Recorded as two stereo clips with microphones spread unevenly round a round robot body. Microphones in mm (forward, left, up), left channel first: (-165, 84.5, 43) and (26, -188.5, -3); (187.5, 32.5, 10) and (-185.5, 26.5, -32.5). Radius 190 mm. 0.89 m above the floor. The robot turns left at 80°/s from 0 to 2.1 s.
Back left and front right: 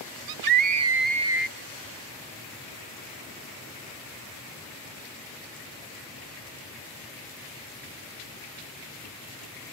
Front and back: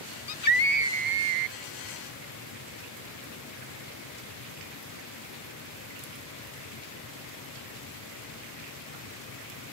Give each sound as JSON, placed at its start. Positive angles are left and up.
{"t": 0.3, "sound": "a scream", "azimuth_deg": -50}